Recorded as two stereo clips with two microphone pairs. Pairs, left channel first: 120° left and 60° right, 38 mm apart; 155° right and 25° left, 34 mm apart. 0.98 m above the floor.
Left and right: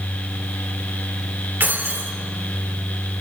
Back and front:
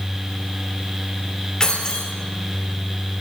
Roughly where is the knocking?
No knocking in this recording.